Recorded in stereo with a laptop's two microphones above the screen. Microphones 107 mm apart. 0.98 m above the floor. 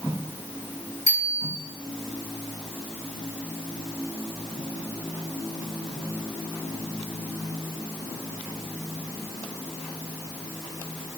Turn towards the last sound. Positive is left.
turn(degrees=-30)  # may be behind; listen again after turning